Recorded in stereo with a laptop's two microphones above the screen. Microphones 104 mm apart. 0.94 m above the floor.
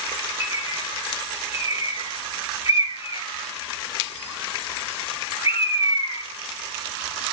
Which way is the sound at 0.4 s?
75° left (ahead or behind).